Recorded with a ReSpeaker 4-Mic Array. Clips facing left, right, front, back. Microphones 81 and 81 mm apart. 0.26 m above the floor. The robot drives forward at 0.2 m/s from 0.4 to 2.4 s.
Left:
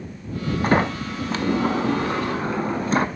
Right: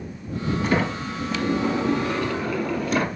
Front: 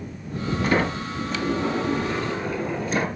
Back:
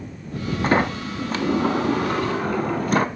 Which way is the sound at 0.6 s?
130° left.